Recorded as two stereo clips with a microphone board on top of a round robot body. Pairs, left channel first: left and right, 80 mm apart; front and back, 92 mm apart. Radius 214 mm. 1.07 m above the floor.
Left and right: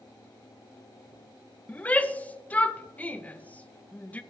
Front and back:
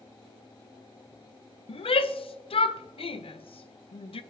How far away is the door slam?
I don't hear a door slam.